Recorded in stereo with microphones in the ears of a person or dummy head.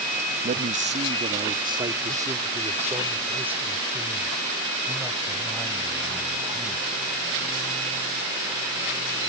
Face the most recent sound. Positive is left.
turn(degrees=-5)  # may be behind; listen again after turning